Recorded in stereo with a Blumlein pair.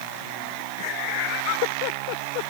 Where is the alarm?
I don't hear an alarm.